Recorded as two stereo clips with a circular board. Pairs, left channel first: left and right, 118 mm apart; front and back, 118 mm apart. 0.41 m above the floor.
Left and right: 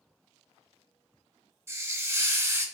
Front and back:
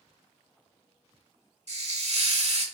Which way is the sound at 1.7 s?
155° right.